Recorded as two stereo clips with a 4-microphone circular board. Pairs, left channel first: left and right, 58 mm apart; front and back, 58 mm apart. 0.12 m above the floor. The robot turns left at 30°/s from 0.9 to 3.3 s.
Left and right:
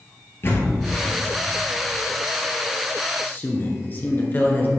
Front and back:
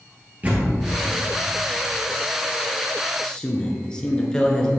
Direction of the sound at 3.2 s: 65° left.